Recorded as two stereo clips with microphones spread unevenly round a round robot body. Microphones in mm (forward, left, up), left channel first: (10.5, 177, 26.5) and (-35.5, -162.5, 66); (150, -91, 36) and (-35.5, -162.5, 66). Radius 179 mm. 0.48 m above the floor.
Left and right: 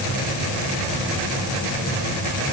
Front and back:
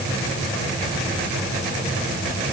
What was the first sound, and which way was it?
Only background noise.